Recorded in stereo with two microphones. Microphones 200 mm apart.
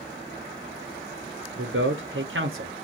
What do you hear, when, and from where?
1.6 s a man speaking: 80° right, 0.5 m